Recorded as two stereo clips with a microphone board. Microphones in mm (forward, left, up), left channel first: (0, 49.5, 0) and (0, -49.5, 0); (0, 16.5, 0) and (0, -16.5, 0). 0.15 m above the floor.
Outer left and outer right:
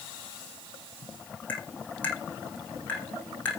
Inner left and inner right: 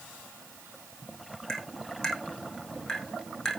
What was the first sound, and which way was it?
Tapping, 15° left (ahead or behind).